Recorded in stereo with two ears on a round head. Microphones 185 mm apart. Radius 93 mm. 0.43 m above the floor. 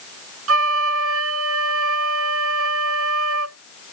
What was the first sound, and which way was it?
A flute, 75° right (ahead or behind).